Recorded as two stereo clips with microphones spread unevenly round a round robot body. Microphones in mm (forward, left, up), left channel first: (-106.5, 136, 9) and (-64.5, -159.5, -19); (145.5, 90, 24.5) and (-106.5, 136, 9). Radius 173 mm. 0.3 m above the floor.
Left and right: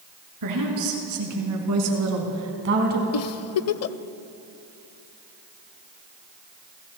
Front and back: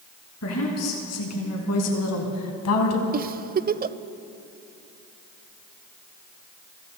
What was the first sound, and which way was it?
A woman speaking, 55° right.